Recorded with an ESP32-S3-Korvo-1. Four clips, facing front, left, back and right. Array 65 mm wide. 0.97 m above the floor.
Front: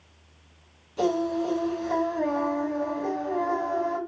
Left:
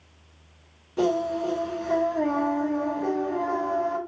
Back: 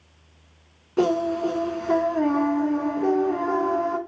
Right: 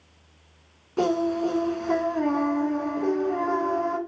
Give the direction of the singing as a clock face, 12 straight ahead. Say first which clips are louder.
Right 1 dB, back 3 dB; 5 o'clock.